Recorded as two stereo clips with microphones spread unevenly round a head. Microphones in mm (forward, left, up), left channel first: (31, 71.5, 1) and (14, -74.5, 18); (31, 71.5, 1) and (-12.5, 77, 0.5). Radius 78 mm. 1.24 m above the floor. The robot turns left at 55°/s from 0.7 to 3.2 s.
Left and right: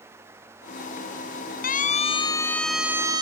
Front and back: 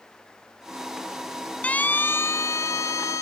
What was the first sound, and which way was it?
A siren, 55° left.